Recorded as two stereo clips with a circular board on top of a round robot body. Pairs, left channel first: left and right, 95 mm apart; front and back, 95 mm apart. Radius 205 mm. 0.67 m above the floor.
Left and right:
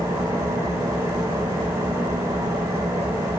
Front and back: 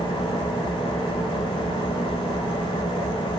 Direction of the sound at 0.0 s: 20° right.